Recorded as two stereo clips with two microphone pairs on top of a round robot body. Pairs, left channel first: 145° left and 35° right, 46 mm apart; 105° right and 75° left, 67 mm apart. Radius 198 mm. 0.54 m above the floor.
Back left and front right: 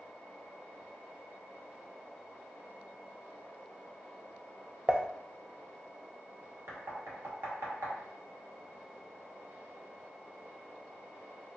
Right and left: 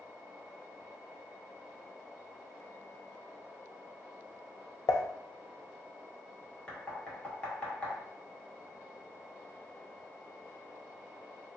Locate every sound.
4.9 s dishes clattering: 100° right, 0.6 m
6.7 s knocking: 30° right, 1.5 m